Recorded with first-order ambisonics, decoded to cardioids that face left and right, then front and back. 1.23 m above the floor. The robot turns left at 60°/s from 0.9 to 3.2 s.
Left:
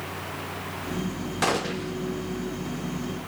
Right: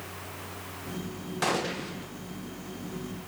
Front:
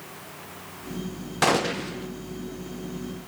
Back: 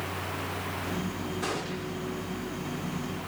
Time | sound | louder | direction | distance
1.4 | a gunshot | left 3 dB, front 13 dB | 15° left | 1.2 m